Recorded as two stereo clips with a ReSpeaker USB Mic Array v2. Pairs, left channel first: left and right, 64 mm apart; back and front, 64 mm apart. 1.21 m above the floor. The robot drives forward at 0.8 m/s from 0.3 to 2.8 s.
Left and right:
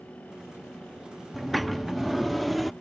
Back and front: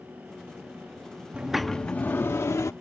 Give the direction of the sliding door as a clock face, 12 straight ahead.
12 o'clock.